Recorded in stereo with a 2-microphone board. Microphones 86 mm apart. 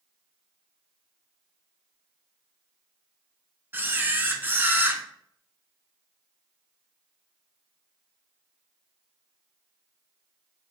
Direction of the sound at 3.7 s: 25° right (ahead or behind).